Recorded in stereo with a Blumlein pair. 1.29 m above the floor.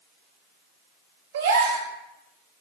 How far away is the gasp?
About 1.9 m.